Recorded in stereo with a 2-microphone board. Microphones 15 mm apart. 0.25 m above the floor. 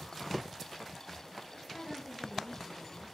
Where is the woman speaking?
70° left (ahead or behind), 4 m.